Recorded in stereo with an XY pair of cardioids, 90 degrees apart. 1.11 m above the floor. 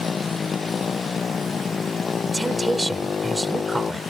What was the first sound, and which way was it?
A motorcycle, 40° left.